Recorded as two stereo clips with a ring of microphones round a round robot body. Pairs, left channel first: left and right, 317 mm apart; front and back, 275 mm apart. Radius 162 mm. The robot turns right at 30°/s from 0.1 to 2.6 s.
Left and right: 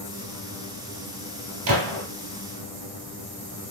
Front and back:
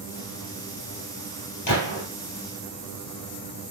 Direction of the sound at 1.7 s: 40° right.